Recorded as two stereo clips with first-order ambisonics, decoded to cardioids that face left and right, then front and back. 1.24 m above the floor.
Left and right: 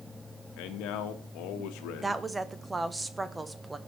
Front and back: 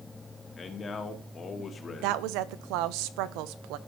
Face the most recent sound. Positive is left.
turn(degrees=-170)